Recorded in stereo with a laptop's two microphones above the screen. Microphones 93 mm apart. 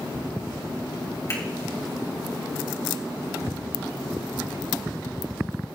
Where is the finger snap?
40° left (ahead or behind), 2.5 m.